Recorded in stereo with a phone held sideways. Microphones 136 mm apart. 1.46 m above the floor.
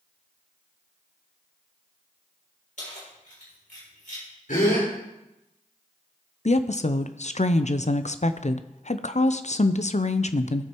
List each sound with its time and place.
2.8 s keys jangling: 65° left (ahead or behind), 4.5 m
4.5 s a gasp: 80° left, 4 m
6.5 s a woman speaking: 55° left (ahead or behind), 0.5 m